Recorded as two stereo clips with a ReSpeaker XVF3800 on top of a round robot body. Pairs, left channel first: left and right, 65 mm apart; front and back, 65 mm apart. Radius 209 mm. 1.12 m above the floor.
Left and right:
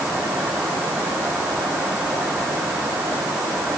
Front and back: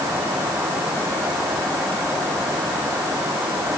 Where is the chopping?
I don't hear chopping.